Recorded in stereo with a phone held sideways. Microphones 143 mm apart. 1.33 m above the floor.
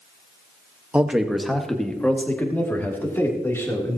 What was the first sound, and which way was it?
A man speaking, 10° right (ahead or behind).